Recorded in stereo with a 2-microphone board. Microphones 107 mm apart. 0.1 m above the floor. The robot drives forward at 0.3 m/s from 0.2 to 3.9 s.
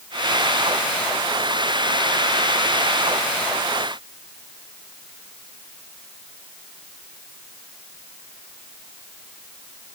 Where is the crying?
I don't hear crying.